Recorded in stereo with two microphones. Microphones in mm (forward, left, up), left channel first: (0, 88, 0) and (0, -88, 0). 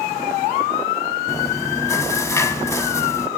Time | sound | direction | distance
1.3 | chewing | 15° left (ahead or behind) | 0.7 m